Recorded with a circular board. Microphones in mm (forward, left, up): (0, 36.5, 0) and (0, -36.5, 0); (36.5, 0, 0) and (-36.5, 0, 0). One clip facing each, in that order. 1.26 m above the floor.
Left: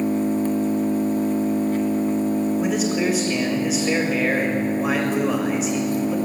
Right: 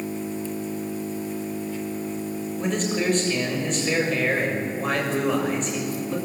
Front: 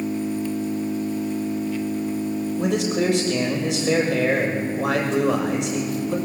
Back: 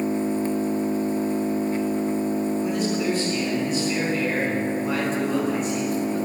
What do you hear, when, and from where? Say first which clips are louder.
0.0 s an engine running: left 9 dB, back 2 dB; 125° left, 1.6 m
2.6 s a man speaking: left 4 dB, front 2 dB; 5° left, 6.5 m